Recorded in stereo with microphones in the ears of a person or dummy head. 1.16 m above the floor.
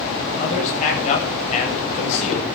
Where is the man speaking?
45° left (ahead or behind), 8.5 m; by 2.5 s 35° left (ahead or behind), 6.5 m.